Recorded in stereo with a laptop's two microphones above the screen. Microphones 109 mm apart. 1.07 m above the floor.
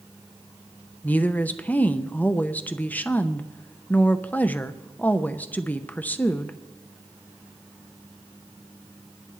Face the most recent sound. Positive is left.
turn(degrees=15)  # may be behind; listen again after turning